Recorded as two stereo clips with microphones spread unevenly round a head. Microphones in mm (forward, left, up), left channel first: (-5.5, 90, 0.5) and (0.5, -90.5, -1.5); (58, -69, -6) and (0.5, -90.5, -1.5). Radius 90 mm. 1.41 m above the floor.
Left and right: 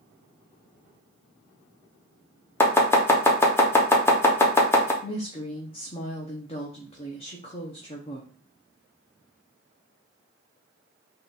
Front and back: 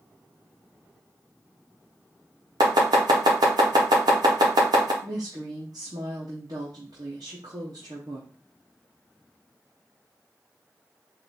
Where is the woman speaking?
150° left, 0.7 m.